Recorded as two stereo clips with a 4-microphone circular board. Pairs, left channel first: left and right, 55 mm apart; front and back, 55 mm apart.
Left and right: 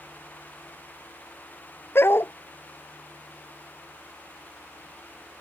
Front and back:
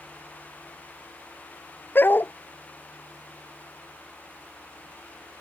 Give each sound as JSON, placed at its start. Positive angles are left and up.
{"t": 1.9, "sound": "a dog barking", "azimuth_deg": 50}